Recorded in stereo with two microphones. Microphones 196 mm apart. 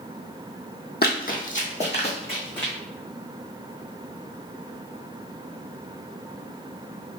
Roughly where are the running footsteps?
Left.